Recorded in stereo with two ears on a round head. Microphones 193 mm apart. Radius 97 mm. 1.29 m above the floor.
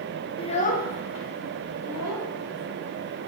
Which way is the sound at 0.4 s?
25° left (ahead or behind).